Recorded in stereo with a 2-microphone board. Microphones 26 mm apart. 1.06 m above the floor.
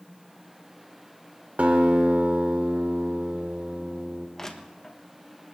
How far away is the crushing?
About 1.4 m.